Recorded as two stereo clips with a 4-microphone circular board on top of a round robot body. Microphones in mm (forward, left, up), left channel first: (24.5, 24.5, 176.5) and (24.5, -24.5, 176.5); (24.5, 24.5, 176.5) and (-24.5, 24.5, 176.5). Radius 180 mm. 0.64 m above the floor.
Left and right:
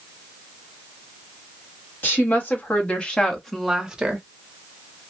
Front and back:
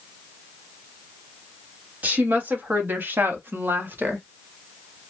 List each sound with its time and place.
2.0 s a woman speaking: 130° left, 1.5 m; by 4.2 s 145° right, 1.0 m